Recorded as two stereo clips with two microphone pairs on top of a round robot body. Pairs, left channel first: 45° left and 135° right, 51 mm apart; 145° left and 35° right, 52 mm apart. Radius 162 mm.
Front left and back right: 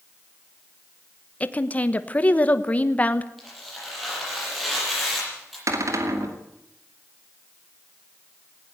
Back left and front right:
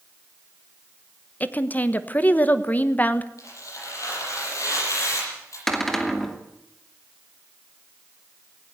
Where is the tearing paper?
135° left, 8.5 m.